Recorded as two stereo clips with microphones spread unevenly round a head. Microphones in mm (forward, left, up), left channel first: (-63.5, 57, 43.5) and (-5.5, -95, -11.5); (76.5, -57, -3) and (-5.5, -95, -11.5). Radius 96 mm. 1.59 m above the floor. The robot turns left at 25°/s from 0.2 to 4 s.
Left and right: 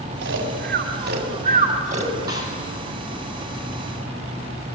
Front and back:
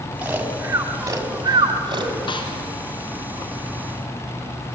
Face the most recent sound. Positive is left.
turn(degrees=-35)